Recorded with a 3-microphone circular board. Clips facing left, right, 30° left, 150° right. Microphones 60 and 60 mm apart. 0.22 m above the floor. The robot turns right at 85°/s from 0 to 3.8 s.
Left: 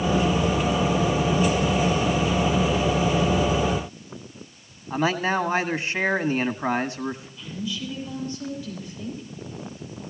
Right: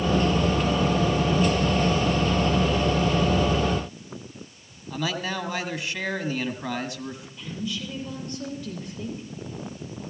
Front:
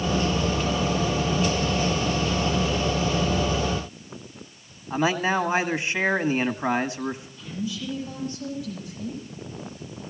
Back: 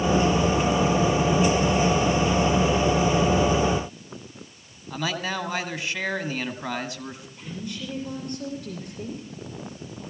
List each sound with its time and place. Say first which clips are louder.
4.9 s a man speaking: left 6 dB, front 6 dB; 65° left, 1.3 m
7.4 s a woman speaking: left 1 dB, front 3 dB; 125° right, 6 m